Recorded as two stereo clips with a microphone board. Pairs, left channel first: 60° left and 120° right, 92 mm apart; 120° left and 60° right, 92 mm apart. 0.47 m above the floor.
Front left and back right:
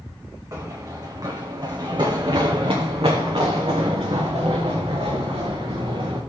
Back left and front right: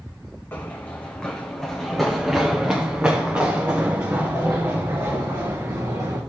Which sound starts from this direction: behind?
Running footsteps, at 0.5 s.